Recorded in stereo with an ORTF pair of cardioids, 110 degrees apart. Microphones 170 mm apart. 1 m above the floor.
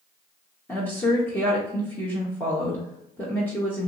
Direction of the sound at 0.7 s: 10° left.